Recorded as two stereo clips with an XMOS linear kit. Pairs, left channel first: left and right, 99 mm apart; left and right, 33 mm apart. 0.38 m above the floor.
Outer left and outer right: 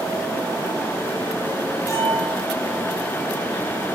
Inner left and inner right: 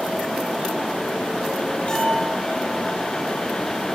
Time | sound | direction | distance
1.9 | a bell | 35° left (ahead or behind) | 9 m